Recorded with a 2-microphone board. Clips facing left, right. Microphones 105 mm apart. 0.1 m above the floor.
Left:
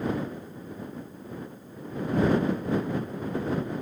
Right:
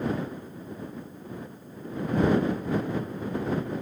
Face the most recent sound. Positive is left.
No sound to turn to.